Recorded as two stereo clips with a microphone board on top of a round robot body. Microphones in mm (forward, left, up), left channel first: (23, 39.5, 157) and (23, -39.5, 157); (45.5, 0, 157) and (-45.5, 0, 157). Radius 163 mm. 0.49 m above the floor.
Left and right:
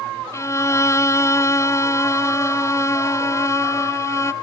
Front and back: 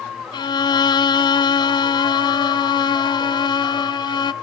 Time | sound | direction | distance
0.3 | a violin | 35° left | 0.5 m